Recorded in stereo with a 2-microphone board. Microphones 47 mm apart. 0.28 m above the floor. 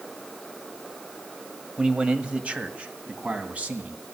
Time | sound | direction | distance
1.8 | a man speaking | 20° right (ahead or behind) | 1.1 m